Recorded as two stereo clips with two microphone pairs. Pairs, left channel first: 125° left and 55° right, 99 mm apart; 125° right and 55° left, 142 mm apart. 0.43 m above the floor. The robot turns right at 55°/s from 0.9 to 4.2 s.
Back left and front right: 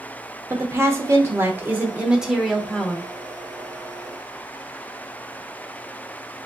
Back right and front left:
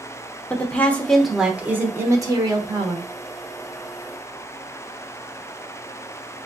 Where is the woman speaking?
55° right, 0.8 m; by 3.1 s 65° left, 0.8 m.